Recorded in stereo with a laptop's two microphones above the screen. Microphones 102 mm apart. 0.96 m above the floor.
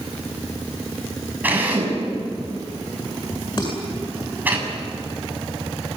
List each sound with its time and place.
1.4 s a drill: 15° right (ahead or behind), 7 m
3.6 s dishes clattering: 45° left (ahead or behind), 8 m